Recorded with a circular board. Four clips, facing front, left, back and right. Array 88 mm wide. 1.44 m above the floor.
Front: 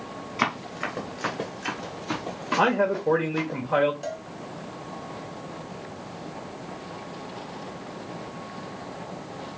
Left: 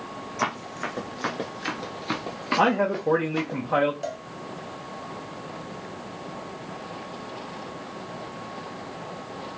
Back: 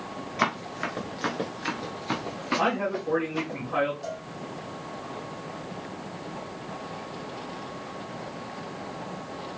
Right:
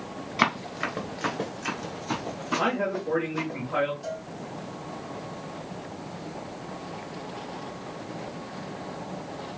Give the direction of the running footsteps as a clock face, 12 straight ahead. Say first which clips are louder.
Right 3 dB, even; 3 o'clock.